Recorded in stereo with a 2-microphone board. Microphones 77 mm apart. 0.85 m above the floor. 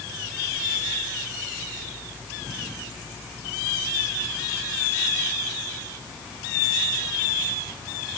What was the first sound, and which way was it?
Only background noise.